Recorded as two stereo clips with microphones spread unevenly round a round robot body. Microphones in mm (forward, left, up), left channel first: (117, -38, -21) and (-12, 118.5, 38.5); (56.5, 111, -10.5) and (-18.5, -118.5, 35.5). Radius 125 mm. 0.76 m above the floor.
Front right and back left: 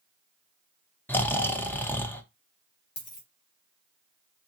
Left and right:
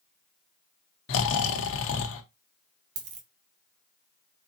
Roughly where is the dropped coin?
Right.